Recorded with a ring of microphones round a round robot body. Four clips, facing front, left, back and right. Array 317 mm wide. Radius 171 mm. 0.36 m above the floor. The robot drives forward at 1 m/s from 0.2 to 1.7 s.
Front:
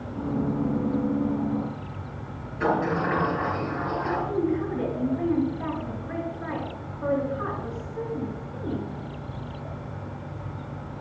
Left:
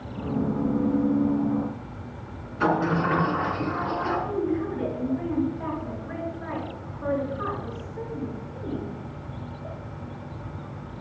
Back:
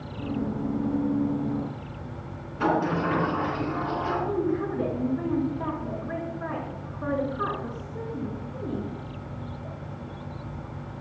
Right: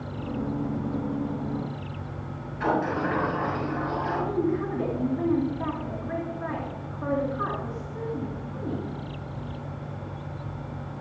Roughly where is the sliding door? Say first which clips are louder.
Left 2 dB, even; behind left.